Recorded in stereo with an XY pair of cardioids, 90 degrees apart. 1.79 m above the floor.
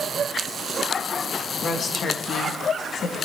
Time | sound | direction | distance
1.6 | a woman speaking | 55° left | 3.5 m